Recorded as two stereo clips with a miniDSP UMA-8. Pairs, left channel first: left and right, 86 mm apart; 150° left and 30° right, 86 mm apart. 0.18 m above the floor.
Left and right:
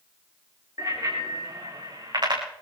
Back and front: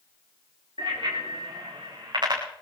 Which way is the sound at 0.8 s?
45° right.